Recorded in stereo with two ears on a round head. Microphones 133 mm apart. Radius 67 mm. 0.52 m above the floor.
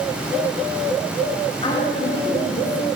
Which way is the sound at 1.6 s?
40° left (ahead or behind).